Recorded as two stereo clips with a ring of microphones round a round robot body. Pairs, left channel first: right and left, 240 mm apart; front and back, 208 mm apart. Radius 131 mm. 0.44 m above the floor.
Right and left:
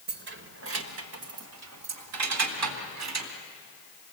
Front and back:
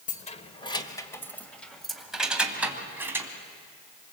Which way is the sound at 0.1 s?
50° left.